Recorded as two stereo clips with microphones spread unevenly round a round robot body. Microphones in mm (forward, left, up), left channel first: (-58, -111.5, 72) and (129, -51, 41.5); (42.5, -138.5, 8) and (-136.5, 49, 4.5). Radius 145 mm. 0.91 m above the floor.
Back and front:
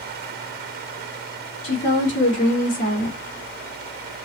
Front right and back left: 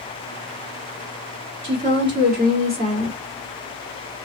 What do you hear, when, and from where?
1.6 s a woman speaking: 175° left, 2.5 m; by 3.2 s 165° right, 2.5 m